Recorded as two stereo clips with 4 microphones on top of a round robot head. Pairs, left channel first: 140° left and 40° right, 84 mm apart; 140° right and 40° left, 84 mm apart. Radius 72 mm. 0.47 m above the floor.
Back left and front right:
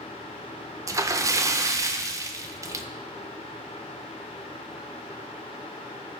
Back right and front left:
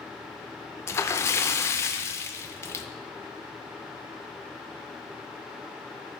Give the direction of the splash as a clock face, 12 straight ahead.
3 o'clock.